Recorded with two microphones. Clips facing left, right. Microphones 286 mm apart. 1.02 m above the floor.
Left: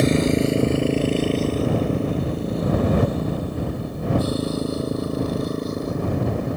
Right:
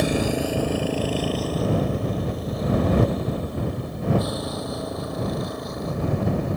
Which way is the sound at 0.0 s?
25° left (ahead or behind).